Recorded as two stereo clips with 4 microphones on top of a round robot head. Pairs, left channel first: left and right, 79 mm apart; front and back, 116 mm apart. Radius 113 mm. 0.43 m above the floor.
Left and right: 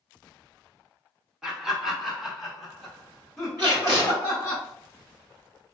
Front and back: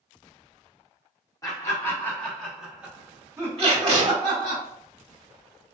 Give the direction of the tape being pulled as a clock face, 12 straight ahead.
5 o'clock.